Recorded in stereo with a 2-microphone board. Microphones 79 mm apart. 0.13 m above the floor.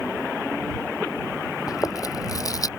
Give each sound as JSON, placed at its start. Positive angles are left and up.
{"t": 1.7, "sound": "chewing", "side_deg": 50}